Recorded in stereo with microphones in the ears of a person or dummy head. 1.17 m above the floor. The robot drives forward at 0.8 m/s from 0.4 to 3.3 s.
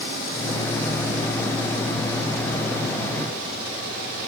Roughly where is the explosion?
I don't hear an explosion.